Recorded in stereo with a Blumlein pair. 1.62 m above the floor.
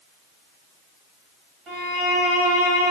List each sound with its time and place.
1.7 s a violin: 30° right, 1.0 m